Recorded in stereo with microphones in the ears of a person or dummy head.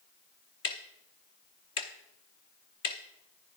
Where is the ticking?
30° left (ahead or behind), 0.7 m.